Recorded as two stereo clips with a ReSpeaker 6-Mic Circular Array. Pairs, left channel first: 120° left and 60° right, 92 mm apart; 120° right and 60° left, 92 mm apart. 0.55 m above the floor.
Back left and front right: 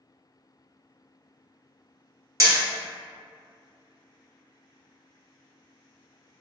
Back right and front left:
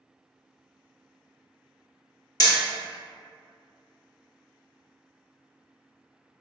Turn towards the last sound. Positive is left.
turn(degrees=-100)